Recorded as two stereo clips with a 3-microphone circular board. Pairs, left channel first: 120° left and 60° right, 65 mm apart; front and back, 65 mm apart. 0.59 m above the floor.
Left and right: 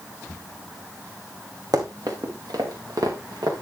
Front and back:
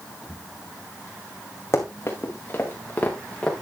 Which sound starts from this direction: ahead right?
Running footsteps, at 1.7 s.